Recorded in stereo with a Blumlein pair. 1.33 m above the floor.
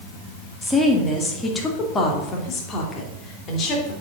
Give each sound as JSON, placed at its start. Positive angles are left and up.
{"t": 0.6, "sound": "a woman speaking", "azimuth_deg": 5, "distance_m": 2.5}